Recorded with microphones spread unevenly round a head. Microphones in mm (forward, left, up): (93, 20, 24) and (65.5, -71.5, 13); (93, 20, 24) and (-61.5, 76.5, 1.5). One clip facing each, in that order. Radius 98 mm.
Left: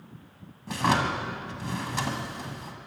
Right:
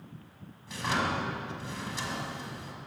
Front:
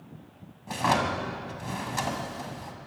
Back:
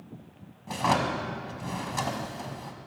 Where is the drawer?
65° left, 1.6 m.